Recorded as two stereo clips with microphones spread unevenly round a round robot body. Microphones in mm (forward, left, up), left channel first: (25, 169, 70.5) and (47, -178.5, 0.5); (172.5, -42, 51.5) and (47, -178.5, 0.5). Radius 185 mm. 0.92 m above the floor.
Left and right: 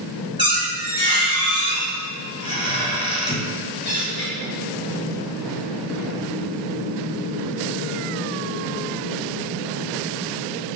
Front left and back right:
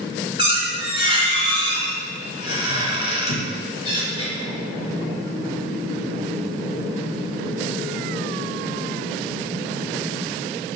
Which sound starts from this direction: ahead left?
A squeak, at 0.4 s.